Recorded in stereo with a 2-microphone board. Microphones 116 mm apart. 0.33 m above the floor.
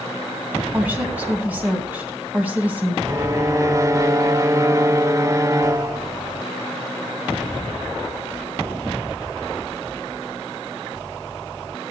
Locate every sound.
0.7 s a woman speaking: 15° right (ahead or behind), 3 m
3.0 s a violin: 25° right (ahead or behind), 0.7 m